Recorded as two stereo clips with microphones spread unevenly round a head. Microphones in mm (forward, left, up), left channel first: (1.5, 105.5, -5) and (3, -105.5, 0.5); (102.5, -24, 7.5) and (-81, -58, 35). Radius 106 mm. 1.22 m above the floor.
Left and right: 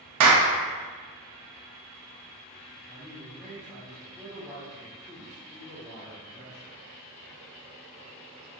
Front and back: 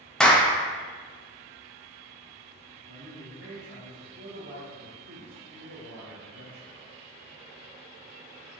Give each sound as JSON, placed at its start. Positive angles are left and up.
{"t": 0.2, "sound": "a clap", "azimuth_deg": -75, "distance_m": 0.5}
{"t": 2.9, "sound": "a man speaking", "azimuth_deg": -175, "distance_m": 0.9}